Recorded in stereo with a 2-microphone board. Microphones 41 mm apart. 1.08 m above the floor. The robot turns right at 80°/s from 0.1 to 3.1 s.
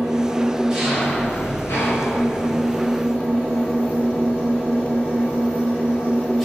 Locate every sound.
0.0 s an engine running: 65° right, 3.5 m; by 6.5 s 175° left, 3.5 m